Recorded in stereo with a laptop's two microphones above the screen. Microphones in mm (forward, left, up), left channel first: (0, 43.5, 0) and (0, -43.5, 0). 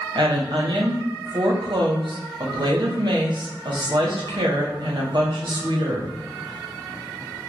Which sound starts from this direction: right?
A woman speaking, at 0.1 s.